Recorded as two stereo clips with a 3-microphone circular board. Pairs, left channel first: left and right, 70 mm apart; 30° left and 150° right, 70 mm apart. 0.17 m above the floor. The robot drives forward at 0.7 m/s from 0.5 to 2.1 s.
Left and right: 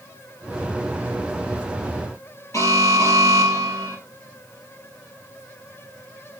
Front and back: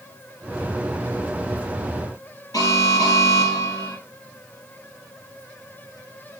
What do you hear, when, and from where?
2.5 s an alarm: 50° left, 4 m